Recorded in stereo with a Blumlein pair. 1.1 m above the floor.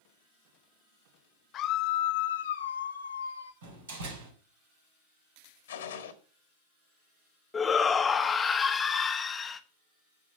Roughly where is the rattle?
No rattle in this recording.